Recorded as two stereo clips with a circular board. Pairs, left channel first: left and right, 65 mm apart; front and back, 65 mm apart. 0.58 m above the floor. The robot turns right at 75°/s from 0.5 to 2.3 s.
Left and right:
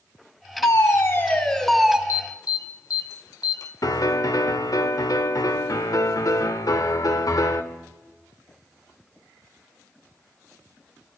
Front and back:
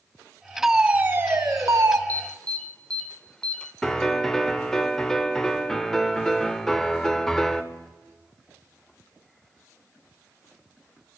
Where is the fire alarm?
95° left, 3 m; by 2.0 s 160° right, 3 m.